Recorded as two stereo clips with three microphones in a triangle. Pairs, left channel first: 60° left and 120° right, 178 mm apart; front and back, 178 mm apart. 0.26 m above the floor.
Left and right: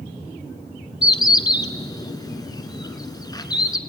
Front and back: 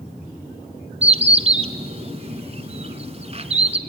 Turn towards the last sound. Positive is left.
turn(degrees=125)